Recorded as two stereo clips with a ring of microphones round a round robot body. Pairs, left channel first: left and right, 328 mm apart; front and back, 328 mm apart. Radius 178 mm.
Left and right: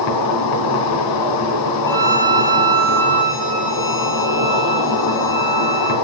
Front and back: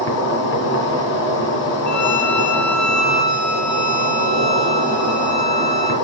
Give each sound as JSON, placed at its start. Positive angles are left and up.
{"t": 0.0, "sound": "an insect", "azimuth_deg": 60, "distance_m": 3.0}
{"t": 1.9, "sound": "a violin", "azimuth_deg": 10, "distance_m": 3.0}